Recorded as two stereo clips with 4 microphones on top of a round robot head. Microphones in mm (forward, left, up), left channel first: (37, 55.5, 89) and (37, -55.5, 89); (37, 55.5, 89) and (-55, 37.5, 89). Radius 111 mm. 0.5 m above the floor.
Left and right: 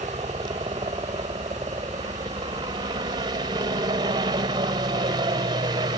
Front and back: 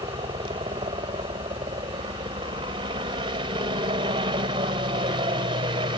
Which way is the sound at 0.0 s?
140° right.